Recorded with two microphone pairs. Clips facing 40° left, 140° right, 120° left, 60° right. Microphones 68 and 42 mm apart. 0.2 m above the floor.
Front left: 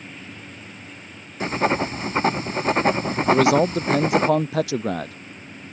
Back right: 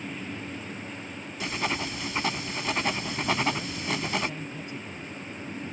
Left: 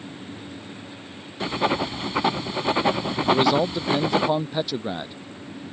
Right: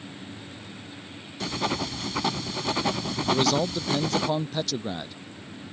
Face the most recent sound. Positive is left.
turn(degrees=50)